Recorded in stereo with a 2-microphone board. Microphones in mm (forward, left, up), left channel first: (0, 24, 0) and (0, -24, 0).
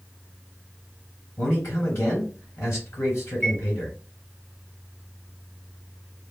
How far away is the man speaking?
About 2.5 m.